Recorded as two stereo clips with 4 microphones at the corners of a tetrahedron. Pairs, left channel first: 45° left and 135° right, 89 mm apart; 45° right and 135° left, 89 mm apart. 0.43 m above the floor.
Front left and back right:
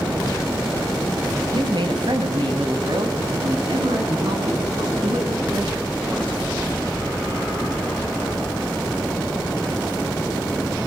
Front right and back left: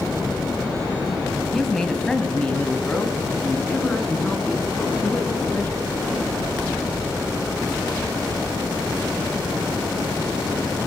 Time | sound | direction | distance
1.5 | a woman speaking | 130° right | 2.5 m